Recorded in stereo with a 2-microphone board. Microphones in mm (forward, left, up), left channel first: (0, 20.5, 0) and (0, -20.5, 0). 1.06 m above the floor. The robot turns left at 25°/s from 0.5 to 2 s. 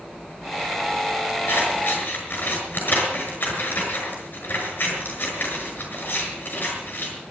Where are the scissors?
65° left (ahead or behind), 6 m; by 7.2 s 55° left (ahead or behind), 6 m.